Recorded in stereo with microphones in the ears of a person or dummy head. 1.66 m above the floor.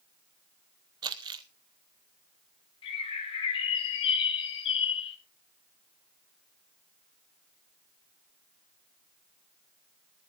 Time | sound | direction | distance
1.0 | crumpling | 20° right (ahead or behind) | 0.9 m
2.8 | a bird | 30° left (ahead or behind) | 2 m